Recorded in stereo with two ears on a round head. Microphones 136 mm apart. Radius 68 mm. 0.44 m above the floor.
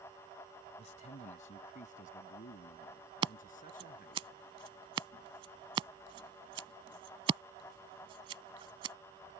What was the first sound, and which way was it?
A man speaking, 45° left (ahead or behind).